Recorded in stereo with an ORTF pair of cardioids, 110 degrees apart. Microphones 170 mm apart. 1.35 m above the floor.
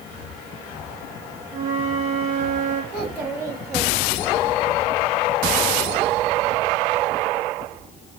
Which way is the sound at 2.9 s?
5° right.